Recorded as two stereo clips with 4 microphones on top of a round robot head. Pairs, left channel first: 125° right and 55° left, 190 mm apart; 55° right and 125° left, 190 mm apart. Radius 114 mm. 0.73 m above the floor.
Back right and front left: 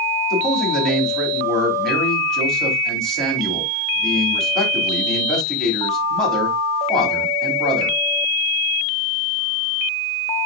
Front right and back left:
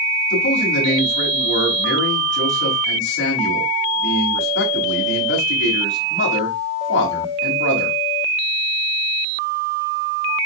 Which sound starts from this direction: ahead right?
A man speaking, at 0.3 s.